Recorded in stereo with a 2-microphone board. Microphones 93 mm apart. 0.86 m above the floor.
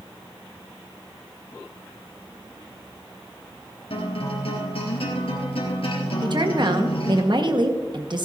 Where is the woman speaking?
50° right (ahead or behind), 1.3 m.